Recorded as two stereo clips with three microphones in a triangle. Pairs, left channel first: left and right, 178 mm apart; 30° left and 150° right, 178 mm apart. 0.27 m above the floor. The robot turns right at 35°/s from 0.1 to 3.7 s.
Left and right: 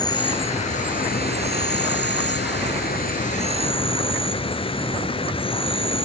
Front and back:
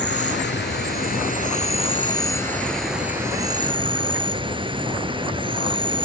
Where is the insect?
25° left, 0.9 m; by 6.1 s 150° left, 0.9 m.